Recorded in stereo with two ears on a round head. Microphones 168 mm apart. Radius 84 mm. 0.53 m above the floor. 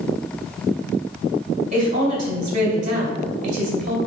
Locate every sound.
1.7 s a woman speaking: 40° right (ahead or behind), 2 m